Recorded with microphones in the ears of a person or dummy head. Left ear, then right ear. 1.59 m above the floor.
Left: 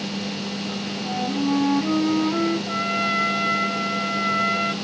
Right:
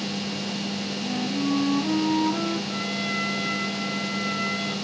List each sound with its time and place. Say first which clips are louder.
1.0 s a flute: left 4 dB; 50° left (ahead or behind), 5 m
2.7 s a trumpet: left 5 dB; 40° left (ahead or behind), 0.8 m